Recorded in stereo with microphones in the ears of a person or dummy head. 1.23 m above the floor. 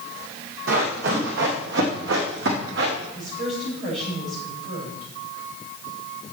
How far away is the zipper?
I don't hear a zipper.